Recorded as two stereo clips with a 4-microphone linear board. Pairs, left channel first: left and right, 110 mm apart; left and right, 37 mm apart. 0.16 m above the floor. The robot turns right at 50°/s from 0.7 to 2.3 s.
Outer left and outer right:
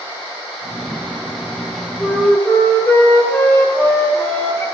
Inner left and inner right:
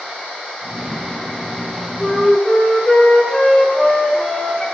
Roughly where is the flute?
Centre.